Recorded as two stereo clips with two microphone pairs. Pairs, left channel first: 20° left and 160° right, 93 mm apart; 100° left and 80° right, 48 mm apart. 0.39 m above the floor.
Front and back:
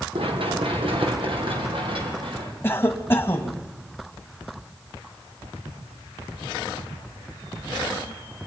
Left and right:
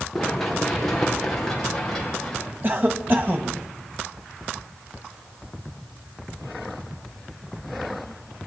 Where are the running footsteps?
175° right, 4 m; by 2.5 s straight behind, 7 m.